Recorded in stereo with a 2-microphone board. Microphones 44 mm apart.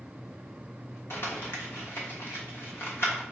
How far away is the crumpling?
About 1.1 m.